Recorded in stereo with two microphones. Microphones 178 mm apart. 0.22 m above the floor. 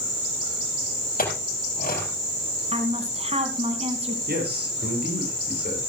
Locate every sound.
1.2 s a clink: 55° left (ahead or behind), 4 m
2.7 s a woman speaking: 35° right (ahead or behind), 2 m
4.3 s a man speaking: 65° right (ahead or behind), 6 m